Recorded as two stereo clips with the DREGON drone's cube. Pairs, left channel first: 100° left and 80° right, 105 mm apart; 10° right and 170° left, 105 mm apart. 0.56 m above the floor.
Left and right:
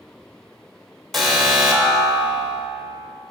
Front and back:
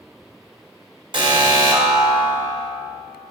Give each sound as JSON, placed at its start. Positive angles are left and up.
{"t": 1.1, "sound": "an alarm", "azimuth_deg": -170, "distance_m": 3.0}